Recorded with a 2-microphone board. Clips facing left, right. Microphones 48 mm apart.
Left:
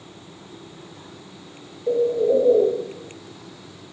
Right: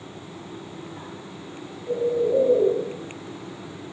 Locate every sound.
1.9 s a bird: 70° left (ahead or behind), 2.0 m